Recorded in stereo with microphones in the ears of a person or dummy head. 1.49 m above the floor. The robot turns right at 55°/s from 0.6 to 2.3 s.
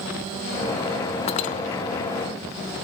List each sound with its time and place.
1.3 s cutlery clinking: 35° left (ahead or behind), 1.3 m; by 1.6 s 50° left (ahead or behind), 1.3 m